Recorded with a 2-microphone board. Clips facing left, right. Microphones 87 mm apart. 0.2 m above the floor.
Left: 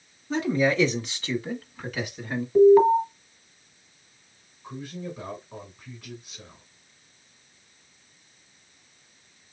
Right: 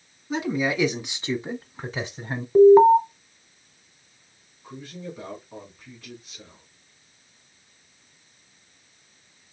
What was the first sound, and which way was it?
A man speaking, 5° right (ahead or behind).